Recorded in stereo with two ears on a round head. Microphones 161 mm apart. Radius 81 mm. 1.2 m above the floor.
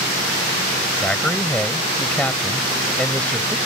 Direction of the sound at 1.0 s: 5° left (ahead or behind).